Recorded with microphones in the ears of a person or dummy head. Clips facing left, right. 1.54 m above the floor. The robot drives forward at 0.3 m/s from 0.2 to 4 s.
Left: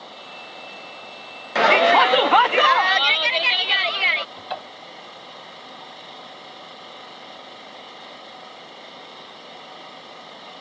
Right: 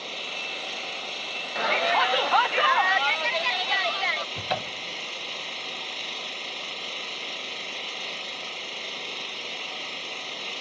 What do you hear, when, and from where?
0.0 s an engine running: 35° right (ahead or behind); by 10.6 s 40° right (ahead or behind)
1.6 s a shout: 65° left (ahead or behind); by 4.2 s 35° left (ahead or behind)
4.3 s a cupboard door: 40° right (ahead or behind)